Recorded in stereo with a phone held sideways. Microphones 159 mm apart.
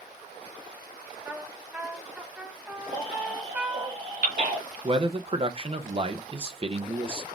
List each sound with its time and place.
1.2 s a trumpet: 10° right (ahead or behind), 1.2 m
2.9 s a baby crying: 80° right, 3.5 m
4.8 s a man speaking: 35° right (ahead or behind), 0.5 m